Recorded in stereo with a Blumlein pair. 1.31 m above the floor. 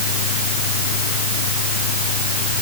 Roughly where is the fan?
Ahead left.